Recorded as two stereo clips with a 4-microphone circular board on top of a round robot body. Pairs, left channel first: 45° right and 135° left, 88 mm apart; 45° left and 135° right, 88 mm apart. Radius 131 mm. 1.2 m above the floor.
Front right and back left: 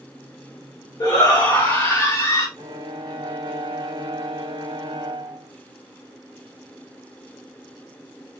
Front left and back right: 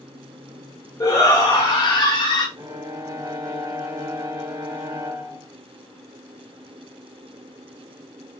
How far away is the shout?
About 1.6 m.